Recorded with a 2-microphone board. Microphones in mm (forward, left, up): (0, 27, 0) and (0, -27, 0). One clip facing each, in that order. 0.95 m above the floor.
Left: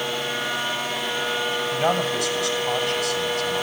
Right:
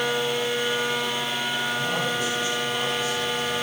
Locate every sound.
1.7 s a man speaking: 80° left, 7 m